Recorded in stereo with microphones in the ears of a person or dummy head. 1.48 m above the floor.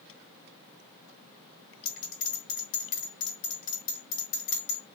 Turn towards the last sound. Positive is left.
turn(degrees=65)  # may be behind; listen again after turning